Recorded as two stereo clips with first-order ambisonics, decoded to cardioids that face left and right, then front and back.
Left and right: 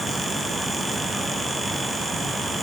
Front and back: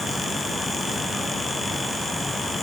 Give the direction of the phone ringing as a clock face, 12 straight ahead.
I don't hear a phone ringing.